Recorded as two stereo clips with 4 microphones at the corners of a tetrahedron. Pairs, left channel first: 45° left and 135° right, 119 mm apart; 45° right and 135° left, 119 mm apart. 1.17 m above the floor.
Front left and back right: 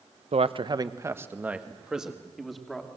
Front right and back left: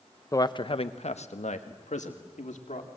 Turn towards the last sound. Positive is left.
turn(degrees=-40)